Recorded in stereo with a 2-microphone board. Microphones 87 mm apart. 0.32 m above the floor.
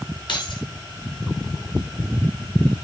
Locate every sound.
0.3 s keys jangling: 65° left (ahead or behind), 3.5 m